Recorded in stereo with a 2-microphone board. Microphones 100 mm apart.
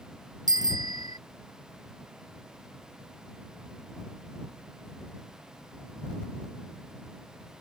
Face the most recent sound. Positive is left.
turn(degrees=-45)  # may be behind; listen again after turning